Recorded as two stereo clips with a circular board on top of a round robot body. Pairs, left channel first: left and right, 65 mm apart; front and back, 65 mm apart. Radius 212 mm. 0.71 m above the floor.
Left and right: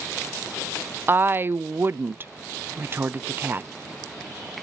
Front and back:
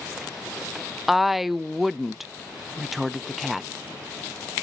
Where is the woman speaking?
95° right, 0.6 m.